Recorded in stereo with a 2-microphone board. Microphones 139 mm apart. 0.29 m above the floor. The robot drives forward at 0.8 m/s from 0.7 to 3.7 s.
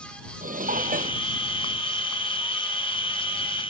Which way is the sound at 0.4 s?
75° right (ahead or behind).